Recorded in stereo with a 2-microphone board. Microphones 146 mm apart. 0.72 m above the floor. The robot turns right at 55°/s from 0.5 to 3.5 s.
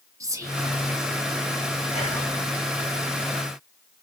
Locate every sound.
0.2 s whispering: 20° right (ahead or behind), 1.0 m
1.9 s whispering: 45° left (ahead or behind), 2 m; by 2.3 s 65° left (ahead or behind), 2 m